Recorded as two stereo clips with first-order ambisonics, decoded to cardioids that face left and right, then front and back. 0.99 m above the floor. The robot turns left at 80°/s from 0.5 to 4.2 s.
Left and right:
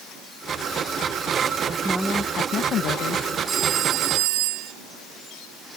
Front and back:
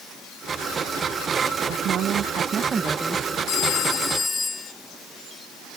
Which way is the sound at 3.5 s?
20° right.